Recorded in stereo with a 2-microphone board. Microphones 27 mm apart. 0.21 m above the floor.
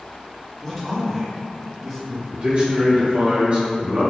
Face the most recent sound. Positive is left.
turn(degrees=-50)  # may be behind; listen again after turning